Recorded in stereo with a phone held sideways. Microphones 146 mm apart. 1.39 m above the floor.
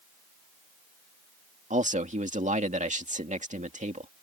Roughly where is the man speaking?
Right.